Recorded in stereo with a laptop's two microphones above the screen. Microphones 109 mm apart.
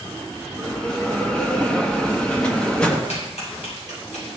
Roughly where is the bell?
Centre.